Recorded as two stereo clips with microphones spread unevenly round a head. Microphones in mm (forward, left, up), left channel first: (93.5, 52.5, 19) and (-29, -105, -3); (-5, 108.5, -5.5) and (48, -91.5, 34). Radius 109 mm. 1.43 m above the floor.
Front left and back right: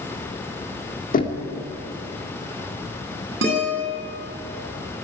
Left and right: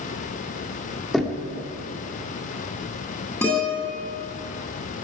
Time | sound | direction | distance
1.1 | knocking | 10° left | 2 m
3.4 | a guitar | 175° right | 10 m